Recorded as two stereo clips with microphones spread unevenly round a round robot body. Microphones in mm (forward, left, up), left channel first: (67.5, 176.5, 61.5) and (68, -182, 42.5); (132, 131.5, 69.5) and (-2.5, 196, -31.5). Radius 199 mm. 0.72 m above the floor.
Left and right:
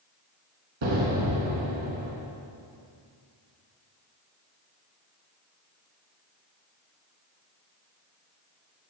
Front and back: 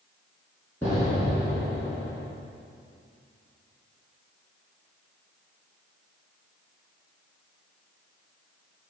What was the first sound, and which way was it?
An explosion, 110° right.